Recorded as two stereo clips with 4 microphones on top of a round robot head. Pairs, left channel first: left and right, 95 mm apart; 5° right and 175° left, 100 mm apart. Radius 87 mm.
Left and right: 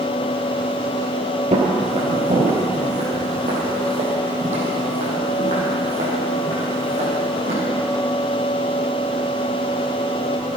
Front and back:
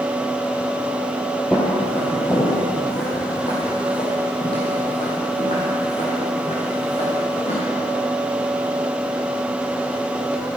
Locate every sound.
1.5 s footsteps: 85° right, 1.9 m; by 7.5 s 50° right, 4.5 m